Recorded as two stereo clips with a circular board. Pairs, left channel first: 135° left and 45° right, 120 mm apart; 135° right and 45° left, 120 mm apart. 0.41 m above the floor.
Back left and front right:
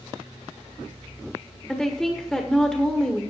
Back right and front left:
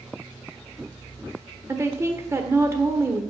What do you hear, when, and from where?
1.7 s a woman speaking: 55° left, 1.1 m